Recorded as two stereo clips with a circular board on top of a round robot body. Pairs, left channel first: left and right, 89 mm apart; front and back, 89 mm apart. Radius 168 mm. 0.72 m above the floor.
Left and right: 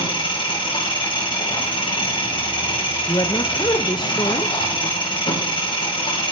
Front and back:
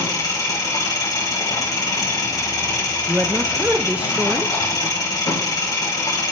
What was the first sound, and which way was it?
An engine running, 55° left.